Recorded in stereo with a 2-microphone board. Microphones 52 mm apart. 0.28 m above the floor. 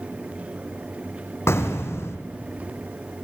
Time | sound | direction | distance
1.5 | an explosion | 55° left (ahead or behind) | 2 m